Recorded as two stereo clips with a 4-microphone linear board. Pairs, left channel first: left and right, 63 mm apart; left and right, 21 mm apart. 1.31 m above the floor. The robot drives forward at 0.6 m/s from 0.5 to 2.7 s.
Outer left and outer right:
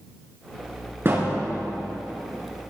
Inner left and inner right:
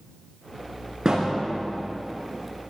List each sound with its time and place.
1.1 s a thud: 35° right (ahead or behind), 3.5 m; by 1.4 s 30° right (ahead or behind), 4 m